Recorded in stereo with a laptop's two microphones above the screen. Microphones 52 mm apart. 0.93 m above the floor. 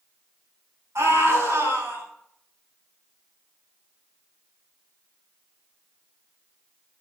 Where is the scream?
70° right (ahead or behind), 9 m.